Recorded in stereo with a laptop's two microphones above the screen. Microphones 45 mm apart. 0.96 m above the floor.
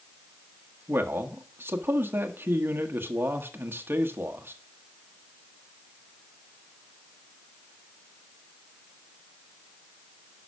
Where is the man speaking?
55° right (ahead or behind), 1.2 m.